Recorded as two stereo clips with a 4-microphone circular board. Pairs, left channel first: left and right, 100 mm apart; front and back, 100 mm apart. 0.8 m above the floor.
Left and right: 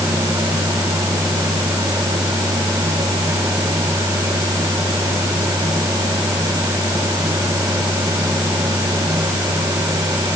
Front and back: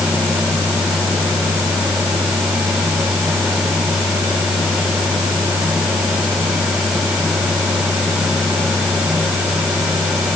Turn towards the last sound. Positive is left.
No sound to turn to.